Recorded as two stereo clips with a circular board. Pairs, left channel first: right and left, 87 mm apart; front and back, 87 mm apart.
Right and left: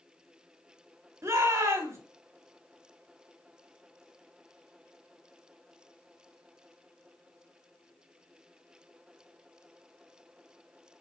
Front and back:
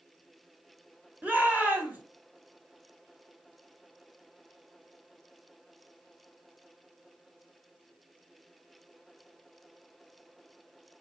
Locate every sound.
1.2 s a shout: 120° left, 1.0 m